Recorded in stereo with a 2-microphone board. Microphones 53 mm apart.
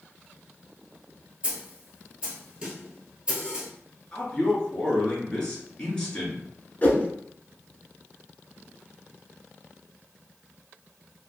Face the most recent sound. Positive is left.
turn(degrees=30)  # may be behind; listen again after turning